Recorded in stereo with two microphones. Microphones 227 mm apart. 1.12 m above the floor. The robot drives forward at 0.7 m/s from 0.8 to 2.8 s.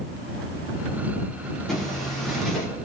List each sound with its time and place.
1.7 s a zipper: centre (ahead or behind), 3.5 m